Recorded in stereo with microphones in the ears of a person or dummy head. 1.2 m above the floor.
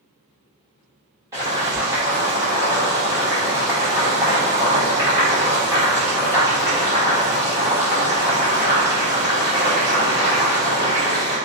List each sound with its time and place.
1.3 s boiling: 20° right (ahead or behind), 1.0 m